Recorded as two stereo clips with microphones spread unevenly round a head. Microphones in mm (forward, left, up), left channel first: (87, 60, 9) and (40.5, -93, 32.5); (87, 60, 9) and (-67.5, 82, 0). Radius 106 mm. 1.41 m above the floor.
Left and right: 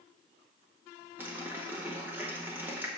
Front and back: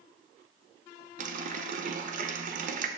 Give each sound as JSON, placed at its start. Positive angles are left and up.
{"t": 1.2, "sound": "a running tap", "azimuth_deg": -175, "distance_m": 0.6}